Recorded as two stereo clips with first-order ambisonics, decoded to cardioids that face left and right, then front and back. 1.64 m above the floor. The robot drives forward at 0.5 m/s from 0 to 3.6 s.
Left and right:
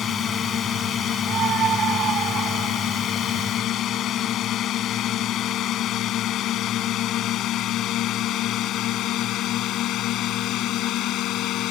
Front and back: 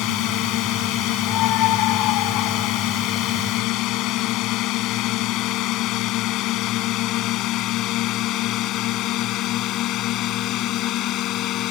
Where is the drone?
30° left; by 11.7 s 45° left.